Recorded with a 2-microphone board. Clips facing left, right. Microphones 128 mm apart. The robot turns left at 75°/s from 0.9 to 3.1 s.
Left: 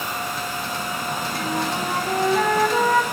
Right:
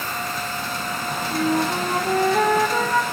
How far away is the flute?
About 2.5 m.